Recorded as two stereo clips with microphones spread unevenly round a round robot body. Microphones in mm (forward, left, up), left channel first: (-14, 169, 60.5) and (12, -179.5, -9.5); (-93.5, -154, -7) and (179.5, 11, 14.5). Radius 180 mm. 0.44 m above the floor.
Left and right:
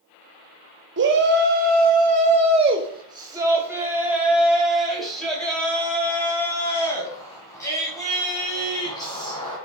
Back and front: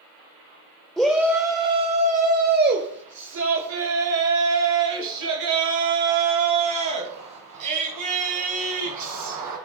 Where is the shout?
65° right, 1.7 m; by 9.6 s 15° left, 5.5 m.